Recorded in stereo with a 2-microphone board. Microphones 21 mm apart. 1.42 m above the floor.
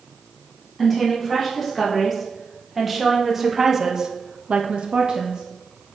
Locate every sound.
0.8 s a woman speaking: centre (ahead or behind), 3 m; by 5.4 s 40° right (ahead or behind), 0.9 m